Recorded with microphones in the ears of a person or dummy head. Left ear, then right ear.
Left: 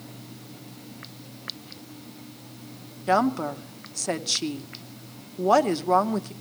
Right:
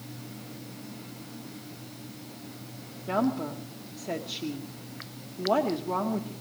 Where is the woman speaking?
60° left (ahead or behind), 0.8 m.